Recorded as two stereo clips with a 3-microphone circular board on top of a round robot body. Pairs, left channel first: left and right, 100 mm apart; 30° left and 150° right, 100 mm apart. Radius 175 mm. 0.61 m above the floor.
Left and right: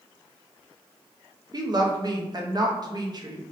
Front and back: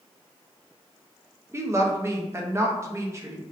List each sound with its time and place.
1.5 s a woman speaking: 100° right, 0.8 m